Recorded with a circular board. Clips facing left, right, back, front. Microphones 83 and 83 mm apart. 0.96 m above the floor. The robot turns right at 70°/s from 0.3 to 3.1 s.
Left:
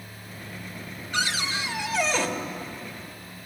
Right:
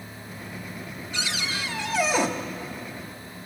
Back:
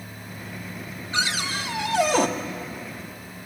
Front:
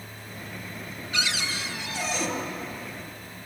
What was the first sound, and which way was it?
A cupboard door, 120° left.